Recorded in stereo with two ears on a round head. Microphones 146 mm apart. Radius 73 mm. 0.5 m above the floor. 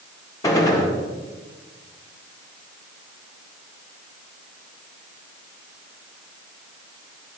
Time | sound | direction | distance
0.4 | a gunshot | 25° left (ahead or behind) | 1.7 m